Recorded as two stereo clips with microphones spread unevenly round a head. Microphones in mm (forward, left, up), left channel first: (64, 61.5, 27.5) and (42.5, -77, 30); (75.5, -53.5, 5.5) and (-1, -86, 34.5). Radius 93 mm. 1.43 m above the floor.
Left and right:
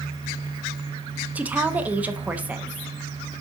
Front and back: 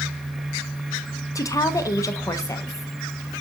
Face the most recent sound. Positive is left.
turn(degrees=-20)